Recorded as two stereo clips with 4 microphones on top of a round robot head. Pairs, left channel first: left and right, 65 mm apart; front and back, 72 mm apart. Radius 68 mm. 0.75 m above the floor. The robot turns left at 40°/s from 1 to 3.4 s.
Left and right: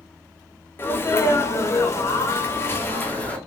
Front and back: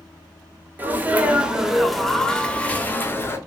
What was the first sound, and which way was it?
A sneeze, 125° left.